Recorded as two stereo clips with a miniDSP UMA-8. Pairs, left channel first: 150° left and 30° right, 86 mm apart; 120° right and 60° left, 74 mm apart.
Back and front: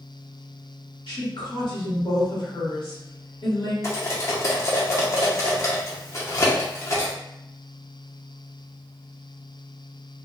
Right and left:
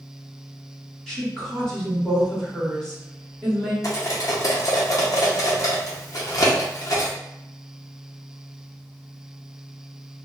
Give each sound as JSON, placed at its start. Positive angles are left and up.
{"t": 1.1, "sound": "a woman speaking", "azimuth_deg": 155, "distance_m": 1.4}
{"t": 3.8, "sound": "cutlery clinking", "azimuth_deg": -160, "distance_m": 0.7}